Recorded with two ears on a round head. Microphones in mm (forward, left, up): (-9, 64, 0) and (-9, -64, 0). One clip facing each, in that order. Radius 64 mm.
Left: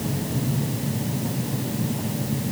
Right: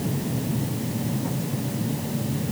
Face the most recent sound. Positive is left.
No sound to turn to.